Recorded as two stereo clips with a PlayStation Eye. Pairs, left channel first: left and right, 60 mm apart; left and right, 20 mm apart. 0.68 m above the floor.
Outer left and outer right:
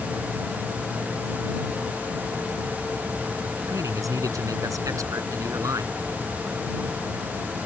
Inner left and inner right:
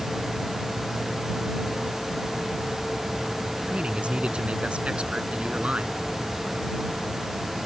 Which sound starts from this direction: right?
A man speaking, at 3.7 s.